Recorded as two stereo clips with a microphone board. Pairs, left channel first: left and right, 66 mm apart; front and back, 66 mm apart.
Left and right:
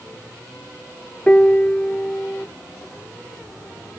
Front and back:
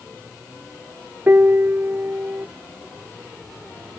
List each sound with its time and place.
1.3 s a piano: 150° left